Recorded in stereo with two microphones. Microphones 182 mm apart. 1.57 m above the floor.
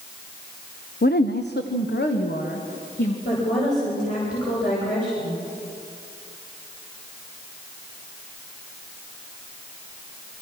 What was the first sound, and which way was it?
A woman speaking, 60° left (ahead or behind).